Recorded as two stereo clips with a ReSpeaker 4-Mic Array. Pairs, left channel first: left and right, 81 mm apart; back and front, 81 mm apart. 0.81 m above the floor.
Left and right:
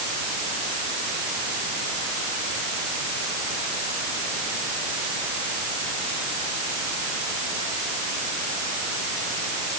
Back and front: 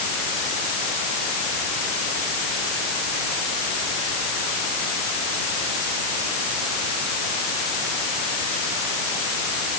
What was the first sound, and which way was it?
Only background noise.